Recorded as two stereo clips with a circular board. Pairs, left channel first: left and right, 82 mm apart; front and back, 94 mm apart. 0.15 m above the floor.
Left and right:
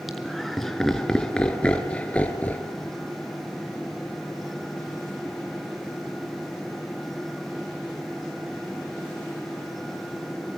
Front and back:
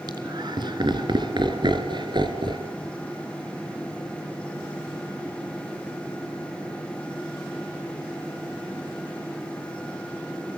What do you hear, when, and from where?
0.1 s laughter: 175° right, 2.5 m; by 2.7 s 160° left, 3.5 m